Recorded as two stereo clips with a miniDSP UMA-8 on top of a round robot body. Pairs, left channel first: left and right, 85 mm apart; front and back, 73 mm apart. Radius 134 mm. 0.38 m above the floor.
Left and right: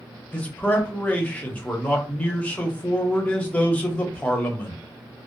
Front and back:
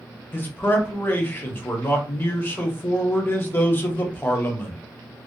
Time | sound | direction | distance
0.3 | a man speaking | 35° left | 0.8 m